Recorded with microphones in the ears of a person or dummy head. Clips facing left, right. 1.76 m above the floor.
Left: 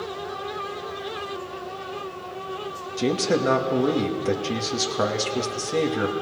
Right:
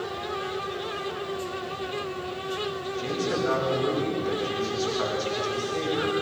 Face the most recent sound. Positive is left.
turn(degrees=60)  # may be behind; listen again after turning